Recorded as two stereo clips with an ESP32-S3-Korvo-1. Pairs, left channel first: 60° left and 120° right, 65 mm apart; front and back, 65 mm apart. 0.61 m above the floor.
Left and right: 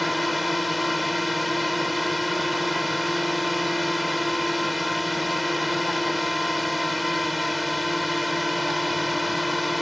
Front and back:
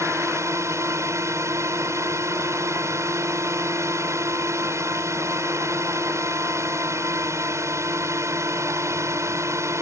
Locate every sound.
0.0 s a drone: 150° left